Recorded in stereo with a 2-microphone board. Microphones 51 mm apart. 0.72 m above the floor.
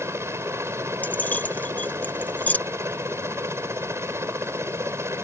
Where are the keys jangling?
35° left (ahead or behind).